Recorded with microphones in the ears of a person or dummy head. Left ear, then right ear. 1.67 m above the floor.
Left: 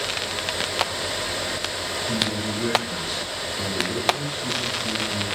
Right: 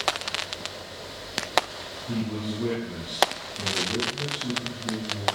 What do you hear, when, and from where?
2.1 s a man speaking: 55° left (ahead or behind), 9.5 m